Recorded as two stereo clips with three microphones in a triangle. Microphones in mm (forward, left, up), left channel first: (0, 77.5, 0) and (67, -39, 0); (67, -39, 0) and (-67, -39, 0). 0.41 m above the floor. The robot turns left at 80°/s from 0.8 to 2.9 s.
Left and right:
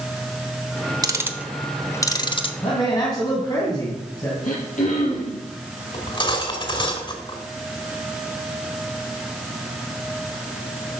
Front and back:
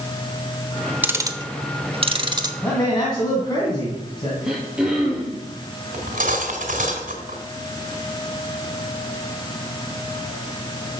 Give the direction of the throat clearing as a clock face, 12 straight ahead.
9 o'clock.